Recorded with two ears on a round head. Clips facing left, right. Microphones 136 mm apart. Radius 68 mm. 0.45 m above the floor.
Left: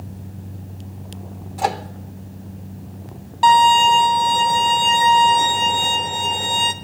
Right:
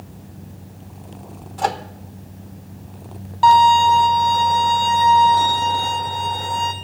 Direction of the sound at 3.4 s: 25° left (ahead or behind).